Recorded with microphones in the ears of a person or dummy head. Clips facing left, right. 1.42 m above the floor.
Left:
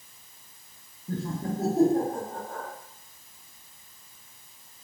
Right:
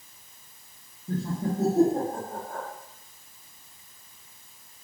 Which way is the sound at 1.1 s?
5° left (ahead or behind).